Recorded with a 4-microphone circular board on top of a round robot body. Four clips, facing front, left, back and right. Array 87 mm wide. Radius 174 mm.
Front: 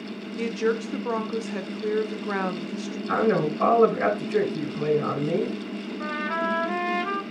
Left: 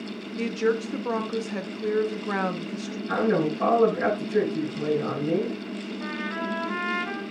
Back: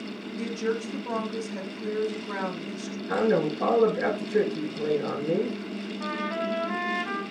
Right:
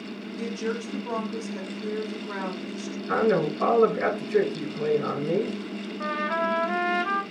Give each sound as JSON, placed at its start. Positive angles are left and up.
{"t": 0.4, "sound": "a woman speaking", "azimuth_deg": 45, "distance_m": 1.6}
{"t": 3.1, "sound": "a man speaking", "azimuth_deg": -10, "distance_m": 5.0}
{"t": 6.0, "sound": "a trumpet", "azimuth_deg": -50, "distance_m": 3.5}